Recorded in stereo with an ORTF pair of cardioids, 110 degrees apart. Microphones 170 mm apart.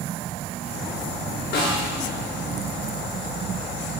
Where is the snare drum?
65° left, 1.3 m.